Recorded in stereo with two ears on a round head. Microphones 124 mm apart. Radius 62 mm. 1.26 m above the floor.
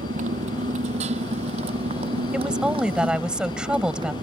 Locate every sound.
0.0 s a motorcycle: 55° right (ahead or behind); by 4.2 s 30° right (ahead or behind)
2.3 s a woman speaking: 5° right (ahead or behind)